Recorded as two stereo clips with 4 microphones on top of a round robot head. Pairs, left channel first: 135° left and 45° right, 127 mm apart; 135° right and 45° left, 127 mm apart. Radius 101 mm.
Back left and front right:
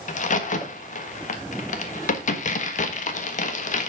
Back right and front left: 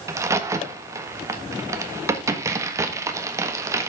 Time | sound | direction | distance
0.1 | a crack | 115° left | 1.5 m